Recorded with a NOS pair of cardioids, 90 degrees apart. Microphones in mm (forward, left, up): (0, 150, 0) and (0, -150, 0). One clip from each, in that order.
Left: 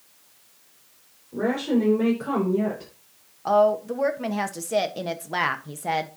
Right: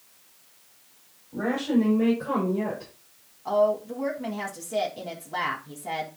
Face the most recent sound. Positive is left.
turn(degrees=65)